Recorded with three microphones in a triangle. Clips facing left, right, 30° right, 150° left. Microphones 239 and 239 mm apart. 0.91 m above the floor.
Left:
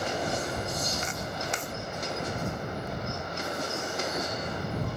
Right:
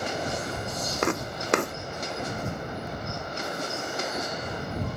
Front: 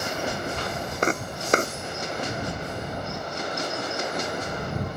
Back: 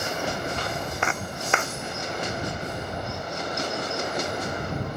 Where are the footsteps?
80° right.